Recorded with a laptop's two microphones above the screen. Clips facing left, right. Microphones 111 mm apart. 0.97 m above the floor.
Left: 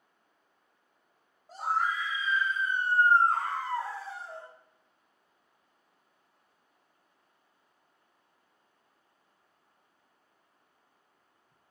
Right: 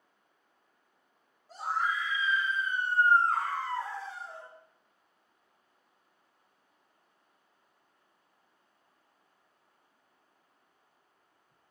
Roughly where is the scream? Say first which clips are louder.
Left 2 dB; left.